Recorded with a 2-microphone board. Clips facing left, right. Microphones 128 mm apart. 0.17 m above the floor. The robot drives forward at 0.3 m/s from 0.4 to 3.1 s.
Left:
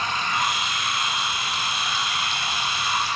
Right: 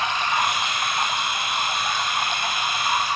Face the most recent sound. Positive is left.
turn(degrees=-55)  # may be behind; listen again after turning